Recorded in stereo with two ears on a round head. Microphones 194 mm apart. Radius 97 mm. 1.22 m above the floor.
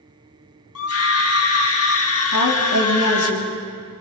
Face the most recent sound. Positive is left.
turn(degrees=80)